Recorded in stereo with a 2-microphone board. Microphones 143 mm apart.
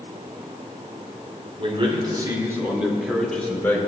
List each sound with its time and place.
1.6 s a man speaking: 45° right (ahead or behind), 2.5 m; by 3.8 s 15° left (ahead or behind), 2.5 m